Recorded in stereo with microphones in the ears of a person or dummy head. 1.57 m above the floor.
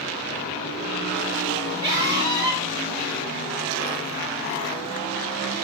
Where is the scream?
20° right (ahead or behind), 4 m.